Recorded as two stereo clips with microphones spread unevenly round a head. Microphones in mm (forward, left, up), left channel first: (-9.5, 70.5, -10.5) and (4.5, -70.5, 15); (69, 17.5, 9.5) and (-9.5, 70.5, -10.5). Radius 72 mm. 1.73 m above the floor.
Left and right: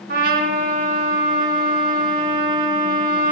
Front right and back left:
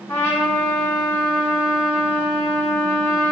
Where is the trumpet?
105° right, 3.5 m.